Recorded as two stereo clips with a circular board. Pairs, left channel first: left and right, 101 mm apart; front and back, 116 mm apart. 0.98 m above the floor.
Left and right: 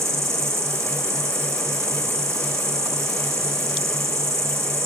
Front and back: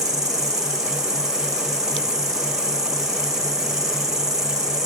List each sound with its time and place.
0.0 s an insect: 140° right, 1.3 m